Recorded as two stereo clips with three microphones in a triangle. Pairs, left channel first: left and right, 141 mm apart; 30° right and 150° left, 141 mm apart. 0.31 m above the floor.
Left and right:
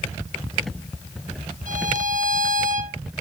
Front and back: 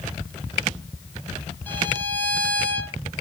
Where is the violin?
105° right, 1.8 m.